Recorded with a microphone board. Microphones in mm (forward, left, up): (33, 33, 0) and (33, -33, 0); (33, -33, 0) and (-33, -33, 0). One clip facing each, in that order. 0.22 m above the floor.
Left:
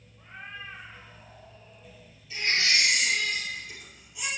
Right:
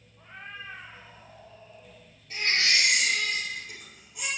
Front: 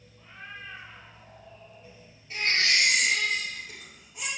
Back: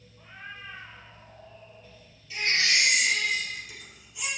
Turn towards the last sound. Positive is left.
turn(degrees=-50)